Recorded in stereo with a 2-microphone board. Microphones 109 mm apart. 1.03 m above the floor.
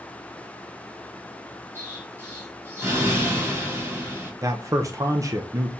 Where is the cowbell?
I don't hear a cowbell.